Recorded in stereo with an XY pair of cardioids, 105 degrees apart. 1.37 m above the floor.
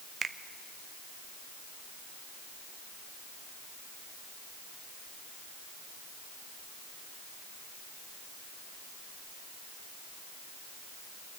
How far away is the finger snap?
About 0.8 m.